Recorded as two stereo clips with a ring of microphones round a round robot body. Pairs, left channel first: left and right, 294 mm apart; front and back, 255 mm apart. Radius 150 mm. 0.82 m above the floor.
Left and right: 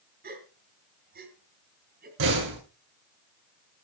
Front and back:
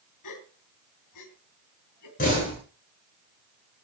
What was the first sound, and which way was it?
A gasp, 30° right.